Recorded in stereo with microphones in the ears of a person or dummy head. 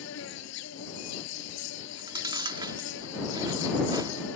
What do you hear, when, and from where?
0.0 s an insect: 80° left
1.8 s chewing: 20° right (ahead or behind)